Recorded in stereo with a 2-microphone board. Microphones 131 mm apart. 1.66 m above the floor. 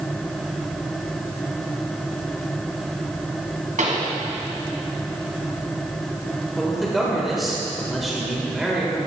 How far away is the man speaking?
About 1.4 m.